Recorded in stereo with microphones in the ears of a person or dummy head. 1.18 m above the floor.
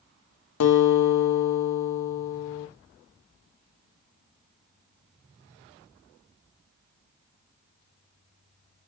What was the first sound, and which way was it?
A guitar, 80° left.